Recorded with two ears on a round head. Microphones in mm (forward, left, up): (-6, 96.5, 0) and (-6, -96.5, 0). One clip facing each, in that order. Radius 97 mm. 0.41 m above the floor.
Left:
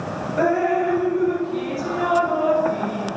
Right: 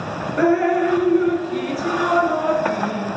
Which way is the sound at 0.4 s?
30° right (ahead or behind).